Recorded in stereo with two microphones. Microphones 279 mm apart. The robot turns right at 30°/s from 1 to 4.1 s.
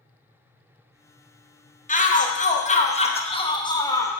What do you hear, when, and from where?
1.9 s a shout: 30° left (ahead or behind), 0.6 m; by 4.2 s 10° left (ahead or behind), 0.6 m